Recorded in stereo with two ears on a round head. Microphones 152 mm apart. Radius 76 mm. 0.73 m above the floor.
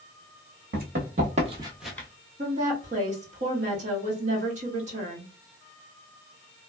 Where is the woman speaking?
45° right (ahead or behind), 1.2 m.